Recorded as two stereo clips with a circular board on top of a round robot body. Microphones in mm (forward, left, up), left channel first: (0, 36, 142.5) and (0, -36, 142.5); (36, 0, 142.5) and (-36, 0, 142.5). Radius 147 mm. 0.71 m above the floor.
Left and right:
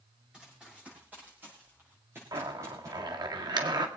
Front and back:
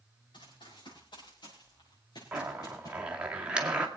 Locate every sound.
0.3 s running footsteps: 15° right, 7.5 m; by 3.0 s 45° right, 5.5 m
2.3 s a zipper: 105° right, 2 m